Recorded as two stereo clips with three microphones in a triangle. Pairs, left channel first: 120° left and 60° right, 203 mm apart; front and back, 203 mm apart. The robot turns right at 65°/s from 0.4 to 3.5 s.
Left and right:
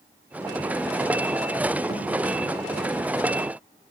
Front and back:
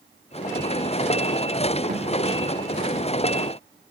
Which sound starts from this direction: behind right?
A thud, at 1.9 s.